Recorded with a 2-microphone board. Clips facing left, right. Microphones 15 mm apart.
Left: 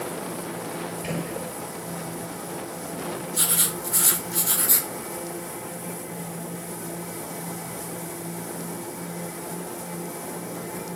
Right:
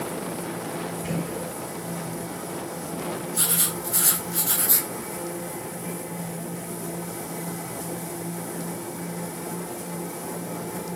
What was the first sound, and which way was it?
A gunshot, 60° left (ahead or behind).